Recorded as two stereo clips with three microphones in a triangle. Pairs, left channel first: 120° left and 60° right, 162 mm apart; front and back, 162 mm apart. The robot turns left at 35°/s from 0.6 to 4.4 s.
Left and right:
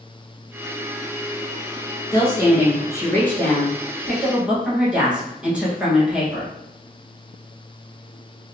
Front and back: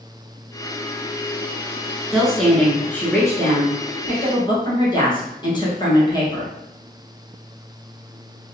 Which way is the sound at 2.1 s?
95° left.